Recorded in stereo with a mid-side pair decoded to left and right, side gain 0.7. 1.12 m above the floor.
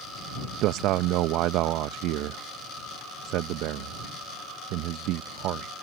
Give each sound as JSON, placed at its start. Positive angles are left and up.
{"t": 0.6, "sound": "a man speaking", "azimuth_deg": -60}